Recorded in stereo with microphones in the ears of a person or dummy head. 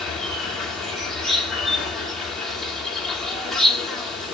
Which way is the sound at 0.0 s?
5° left (ahead or behind).